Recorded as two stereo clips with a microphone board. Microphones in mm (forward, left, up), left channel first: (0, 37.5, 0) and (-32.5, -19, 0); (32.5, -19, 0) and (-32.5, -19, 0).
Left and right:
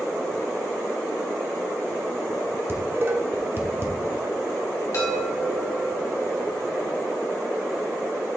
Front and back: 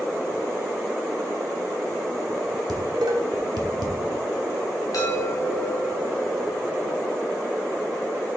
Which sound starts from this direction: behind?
Dishes clattering, at 2.7 s.